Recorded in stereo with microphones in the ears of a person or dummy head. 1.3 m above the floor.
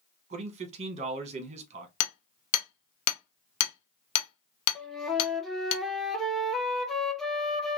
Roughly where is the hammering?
Left.